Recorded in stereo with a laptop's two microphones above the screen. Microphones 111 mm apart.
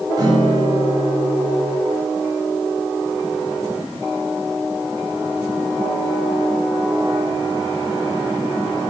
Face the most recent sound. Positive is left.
turn(degrees=-35)  # may be behind; listen again after turning